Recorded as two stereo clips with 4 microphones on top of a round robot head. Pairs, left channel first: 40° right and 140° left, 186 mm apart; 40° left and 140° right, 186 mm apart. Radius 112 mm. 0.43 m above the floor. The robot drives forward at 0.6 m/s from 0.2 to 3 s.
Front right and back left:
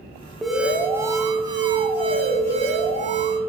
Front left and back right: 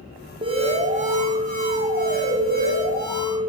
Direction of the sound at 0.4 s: 130° right.